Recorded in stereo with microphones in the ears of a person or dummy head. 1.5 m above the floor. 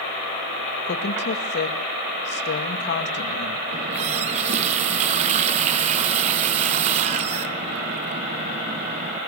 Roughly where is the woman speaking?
Left.